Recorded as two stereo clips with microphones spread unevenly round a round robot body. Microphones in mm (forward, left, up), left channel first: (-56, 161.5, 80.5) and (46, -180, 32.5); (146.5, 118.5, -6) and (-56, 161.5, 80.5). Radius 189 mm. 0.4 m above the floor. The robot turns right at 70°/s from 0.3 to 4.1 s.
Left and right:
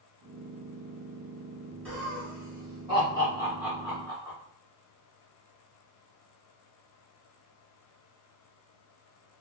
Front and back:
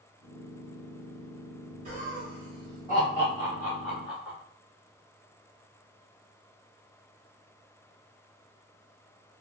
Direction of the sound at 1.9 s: 150° right.